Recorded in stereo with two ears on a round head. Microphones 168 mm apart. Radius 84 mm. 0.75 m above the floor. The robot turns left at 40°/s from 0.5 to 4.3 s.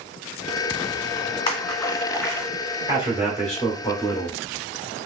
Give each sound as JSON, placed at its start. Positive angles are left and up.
{"t": 1.5, "sound": "a splash", "side_deg": 30, "distance_m": 1.9}
{"t": 2.9, "sound": "a man speaking", "azimuth_deg": -155, "distance_m": 1.6}